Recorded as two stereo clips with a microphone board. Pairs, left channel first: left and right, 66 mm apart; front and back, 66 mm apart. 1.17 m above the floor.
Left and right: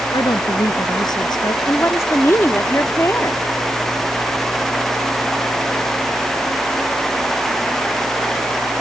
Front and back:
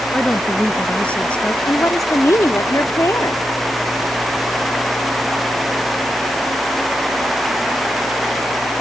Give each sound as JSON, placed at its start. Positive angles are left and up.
{"t": 0.1, "sound": "a woman speaking", "azimuth_deg": 75}
{"t": 1.7, "sound": "a woman speaking", "azimuth_deg": 40}